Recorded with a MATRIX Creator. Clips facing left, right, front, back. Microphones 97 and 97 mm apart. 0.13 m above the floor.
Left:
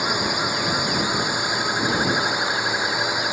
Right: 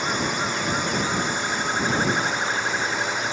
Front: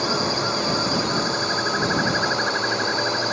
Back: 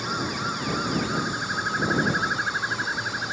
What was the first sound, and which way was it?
A drone, 15° left.